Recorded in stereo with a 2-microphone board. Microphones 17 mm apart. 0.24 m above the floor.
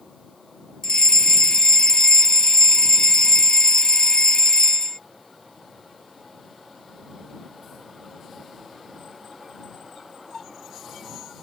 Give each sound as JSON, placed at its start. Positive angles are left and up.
{"t": 0.8, "sound": "a fire alarm", "side_deg": 55}